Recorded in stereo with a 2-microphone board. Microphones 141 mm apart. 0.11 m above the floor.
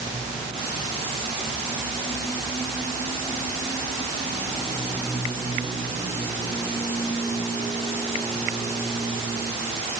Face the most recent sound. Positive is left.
No sound to turn to.